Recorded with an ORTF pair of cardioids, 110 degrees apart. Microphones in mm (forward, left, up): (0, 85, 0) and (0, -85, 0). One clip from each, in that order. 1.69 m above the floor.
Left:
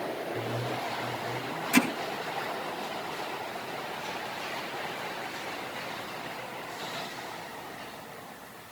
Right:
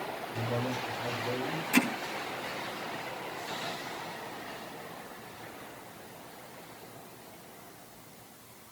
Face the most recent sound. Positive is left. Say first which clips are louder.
# left 2 dB
turn(degrees=15)